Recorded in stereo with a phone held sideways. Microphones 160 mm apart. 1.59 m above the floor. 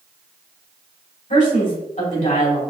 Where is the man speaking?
55° left (ahead or behind), 2.5 m.